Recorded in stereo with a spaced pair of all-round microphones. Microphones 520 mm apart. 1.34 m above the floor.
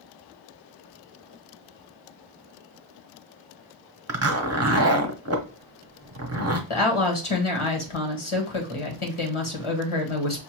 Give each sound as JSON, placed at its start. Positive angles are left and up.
{"t": 4.1, "sound": "a zipper", "side_deg": -30, "distance_m": 0.7}
{"t": 6.7, "sound": "a woman speaking", "side_deg": 65, "distance_m": 1.3}